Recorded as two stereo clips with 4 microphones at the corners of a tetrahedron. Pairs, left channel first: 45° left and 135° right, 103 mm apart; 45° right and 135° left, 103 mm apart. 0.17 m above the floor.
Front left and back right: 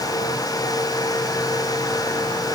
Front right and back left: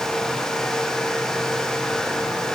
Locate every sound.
Only background noise.